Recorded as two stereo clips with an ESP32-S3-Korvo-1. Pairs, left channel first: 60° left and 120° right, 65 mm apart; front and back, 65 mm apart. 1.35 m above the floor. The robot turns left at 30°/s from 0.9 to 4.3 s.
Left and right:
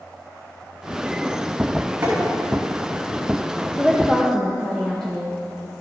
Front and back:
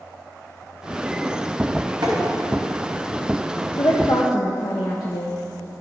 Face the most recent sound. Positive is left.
turn(degrees=-30)